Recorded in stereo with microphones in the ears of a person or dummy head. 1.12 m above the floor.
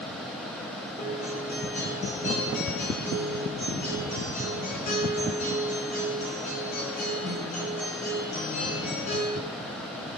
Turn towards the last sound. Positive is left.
turn(degrees=35)  # may be behind; listen again after turning